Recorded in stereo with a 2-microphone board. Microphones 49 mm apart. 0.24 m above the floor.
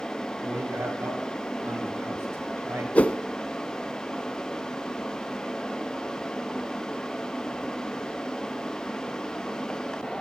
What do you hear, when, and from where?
0.4 s a man speaking: 65° right (ahead or behind), 4.5 m
3.0 s a whoosh: 30° left (ahead or behind), 0.6 m